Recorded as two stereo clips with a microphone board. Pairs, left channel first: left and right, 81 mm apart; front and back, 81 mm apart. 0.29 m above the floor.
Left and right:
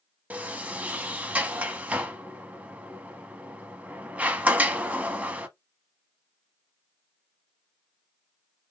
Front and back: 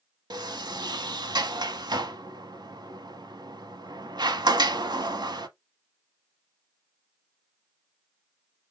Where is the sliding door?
160° right, 0.7 m.